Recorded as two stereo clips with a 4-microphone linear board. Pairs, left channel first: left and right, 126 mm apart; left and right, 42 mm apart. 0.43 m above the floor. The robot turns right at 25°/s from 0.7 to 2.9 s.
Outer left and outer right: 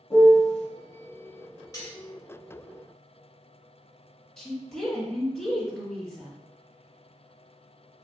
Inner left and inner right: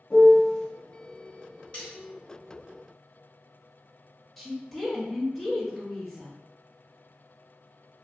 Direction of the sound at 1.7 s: 30° left (ahead or behind).